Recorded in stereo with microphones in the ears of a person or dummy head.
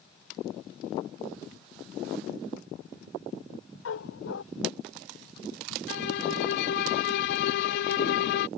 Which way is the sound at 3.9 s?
80° left.